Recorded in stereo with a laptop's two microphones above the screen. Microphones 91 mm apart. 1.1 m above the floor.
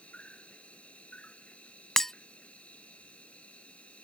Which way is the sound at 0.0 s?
15° left (ahead or behind).